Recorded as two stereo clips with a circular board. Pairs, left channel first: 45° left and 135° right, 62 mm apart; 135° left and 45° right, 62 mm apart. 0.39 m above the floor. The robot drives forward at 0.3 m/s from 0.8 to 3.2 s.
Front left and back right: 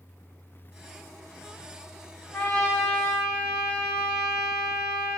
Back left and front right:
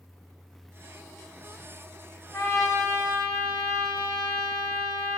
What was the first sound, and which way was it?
A trumpet, 105° left.